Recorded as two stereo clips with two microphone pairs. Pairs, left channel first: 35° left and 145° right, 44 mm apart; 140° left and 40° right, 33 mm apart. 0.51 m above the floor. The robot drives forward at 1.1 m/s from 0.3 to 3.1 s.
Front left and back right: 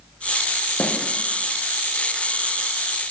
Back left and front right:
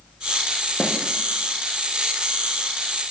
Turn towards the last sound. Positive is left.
turn(degrees=120)